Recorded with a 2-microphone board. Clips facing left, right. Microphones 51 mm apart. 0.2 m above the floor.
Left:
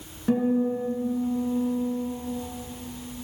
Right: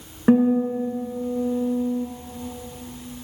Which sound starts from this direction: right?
A guitar, at 0.3 s.